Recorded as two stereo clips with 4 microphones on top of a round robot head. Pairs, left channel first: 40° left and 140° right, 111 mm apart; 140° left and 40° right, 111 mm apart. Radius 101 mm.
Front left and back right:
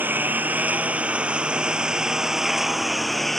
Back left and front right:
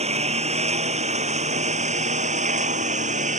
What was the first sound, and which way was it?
A lawn mower, 65° right.